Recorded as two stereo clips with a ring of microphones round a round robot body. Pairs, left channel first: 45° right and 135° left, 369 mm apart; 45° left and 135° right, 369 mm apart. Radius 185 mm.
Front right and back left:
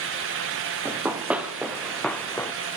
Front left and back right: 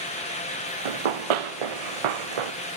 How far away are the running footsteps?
About 3.5 m.